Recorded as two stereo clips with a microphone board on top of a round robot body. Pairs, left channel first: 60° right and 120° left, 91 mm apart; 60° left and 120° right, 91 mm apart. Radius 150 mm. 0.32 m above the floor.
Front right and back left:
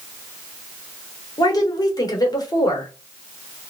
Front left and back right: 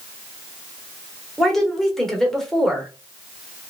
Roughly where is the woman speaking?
Ahead right.